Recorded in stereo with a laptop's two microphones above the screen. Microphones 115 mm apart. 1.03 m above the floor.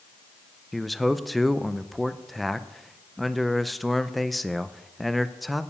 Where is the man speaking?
Centre (ahead or behind), 0.5 m.